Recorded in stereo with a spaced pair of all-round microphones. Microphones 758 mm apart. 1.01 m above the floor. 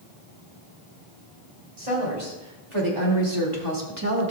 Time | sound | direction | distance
1.8 | a woman speaking | 50° right (ahead or behind) | 3.5 m